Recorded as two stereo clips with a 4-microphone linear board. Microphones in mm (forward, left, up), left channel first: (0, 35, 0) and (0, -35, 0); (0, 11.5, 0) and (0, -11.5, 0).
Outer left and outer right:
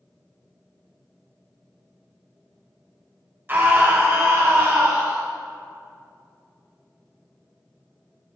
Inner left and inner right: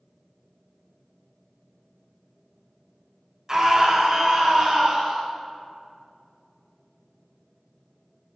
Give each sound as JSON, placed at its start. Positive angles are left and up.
{"t": 3.5, "sound": "a scream", "side_deg": -30, "distance_m": 1.3}